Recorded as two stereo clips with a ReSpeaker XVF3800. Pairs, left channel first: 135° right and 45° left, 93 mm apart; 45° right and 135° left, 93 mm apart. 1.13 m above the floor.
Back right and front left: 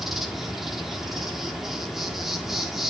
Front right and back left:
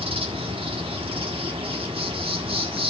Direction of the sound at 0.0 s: 130° left.